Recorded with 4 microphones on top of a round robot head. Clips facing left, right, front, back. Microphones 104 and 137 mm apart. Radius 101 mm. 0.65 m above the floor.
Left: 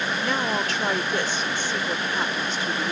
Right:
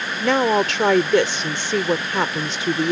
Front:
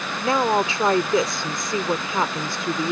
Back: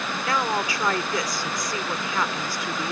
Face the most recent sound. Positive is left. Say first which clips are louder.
# right 11 dB, front 6 dB
turn(degrees=-70)